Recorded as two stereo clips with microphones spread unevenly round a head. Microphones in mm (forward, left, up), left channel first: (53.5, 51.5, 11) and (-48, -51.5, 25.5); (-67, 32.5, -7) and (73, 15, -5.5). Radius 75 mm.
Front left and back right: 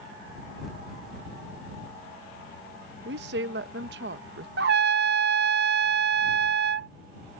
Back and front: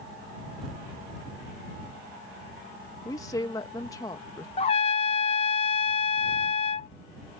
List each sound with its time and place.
3.0 s a woman speaking: 115° right
4.6 s a trumpet: 130° right